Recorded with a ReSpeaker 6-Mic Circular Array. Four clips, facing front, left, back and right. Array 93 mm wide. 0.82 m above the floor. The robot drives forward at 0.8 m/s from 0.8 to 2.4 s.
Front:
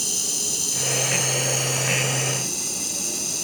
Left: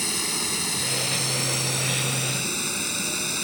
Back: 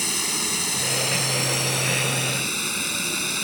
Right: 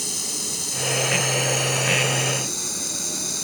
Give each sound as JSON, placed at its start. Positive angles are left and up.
{"t": 0.0, "sound": "running water", "azimuth_deg": 150}